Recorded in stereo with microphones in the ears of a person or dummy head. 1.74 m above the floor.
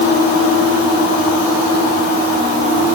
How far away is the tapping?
I don't hear tapping.